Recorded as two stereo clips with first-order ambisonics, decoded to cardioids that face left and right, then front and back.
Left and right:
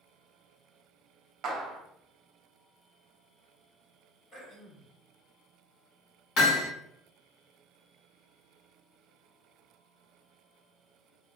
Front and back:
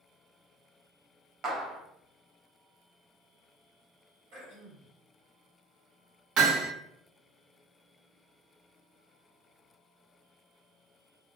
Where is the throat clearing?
Straight behind, 1.8 m.